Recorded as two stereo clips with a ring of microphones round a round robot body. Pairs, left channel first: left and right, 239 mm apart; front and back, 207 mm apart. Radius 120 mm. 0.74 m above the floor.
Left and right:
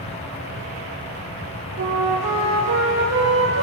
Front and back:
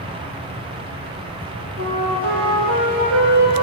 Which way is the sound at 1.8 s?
135° right.